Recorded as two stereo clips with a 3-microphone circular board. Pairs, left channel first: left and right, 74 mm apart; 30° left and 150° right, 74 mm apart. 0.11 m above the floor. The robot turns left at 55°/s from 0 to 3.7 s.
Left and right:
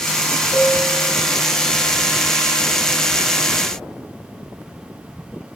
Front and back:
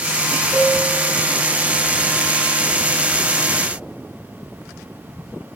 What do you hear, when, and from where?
0.5 s a piano: 120° left, 1.0 m; by 1.2 s 85° left, 1.0 m